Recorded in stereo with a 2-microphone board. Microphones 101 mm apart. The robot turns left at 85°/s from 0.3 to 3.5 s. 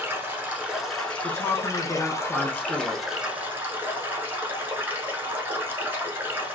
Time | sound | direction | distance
0.0 | running water | 130° right | 0.9 m
1.2 | a woman speaking | 100° left | 0.7 m